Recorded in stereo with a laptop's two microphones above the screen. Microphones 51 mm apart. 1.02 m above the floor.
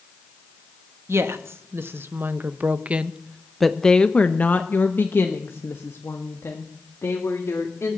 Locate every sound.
1.1 s a woman speaking: 60° right (ahead or behind), 1.4 m; by 8.0 s 75° left (ahead or behind), 2.5 m